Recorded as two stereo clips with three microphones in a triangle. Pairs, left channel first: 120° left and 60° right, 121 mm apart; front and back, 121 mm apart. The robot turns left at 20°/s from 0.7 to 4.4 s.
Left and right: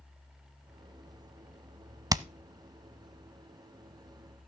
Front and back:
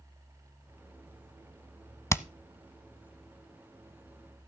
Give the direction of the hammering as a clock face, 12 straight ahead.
1 o'clock.